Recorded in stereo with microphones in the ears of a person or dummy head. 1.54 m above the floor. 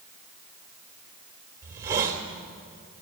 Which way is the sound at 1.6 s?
25° right (ahead or behind).